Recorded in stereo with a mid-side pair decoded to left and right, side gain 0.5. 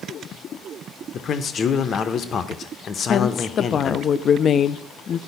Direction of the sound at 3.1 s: 45° left.